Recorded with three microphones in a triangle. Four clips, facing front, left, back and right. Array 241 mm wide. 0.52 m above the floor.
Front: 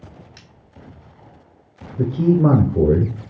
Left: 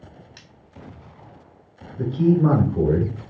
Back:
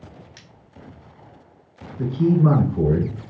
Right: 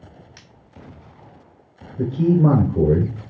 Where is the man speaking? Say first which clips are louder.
Right 1 dB, front 2 dB; 25° right, 1.9 m.